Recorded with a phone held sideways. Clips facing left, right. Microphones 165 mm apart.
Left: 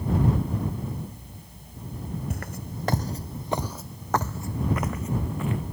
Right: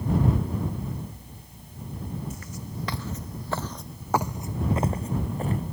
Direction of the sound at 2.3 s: 65° left (ahead or behind).